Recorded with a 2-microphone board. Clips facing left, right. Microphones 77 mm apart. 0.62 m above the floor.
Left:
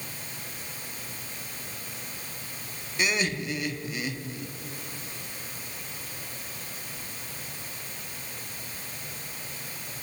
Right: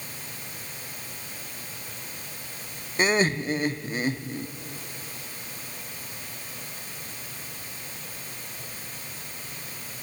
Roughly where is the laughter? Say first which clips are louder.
Right 5 dB; right.